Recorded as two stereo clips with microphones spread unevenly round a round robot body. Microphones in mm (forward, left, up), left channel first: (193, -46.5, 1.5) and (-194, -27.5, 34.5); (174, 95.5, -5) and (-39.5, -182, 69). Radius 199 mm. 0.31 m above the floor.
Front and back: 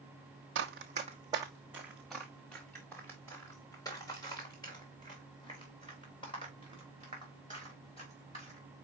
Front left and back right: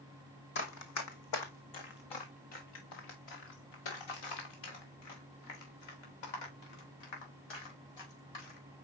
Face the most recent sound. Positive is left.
turn(degrees=75)